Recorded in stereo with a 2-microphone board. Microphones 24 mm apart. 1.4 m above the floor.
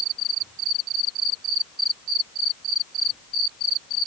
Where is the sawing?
I don't hear sawing.